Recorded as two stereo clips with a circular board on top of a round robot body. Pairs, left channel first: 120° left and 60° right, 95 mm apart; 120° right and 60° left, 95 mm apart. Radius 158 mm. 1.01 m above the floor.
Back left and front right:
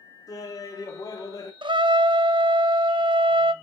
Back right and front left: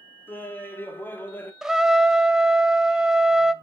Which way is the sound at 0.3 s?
170° left.